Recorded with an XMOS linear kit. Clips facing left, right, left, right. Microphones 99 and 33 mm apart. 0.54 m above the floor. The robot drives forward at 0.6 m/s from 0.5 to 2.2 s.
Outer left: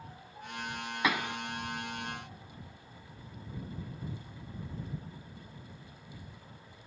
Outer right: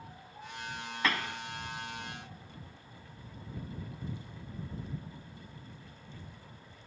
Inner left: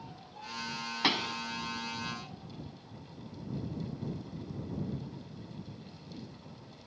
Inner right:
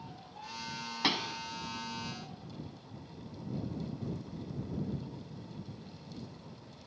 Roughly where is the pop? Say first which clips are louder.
Outer left 2 dB, inner left 2 dB; centre.